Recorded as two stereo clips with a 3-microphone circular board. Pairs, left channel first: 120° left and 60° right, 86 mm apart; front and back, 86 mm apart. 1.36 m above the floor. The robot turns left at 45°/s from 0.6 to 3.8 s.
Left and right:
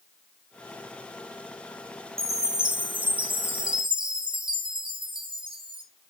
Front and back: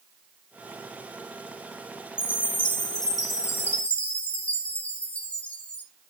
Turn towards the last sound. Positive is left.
turn(degrees=-75)